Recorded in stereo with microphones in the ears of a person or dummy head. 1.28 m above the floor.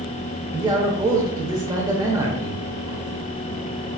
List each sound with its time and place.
0.5 s a man speaking: 15° right (ahead or behind), 0.6 m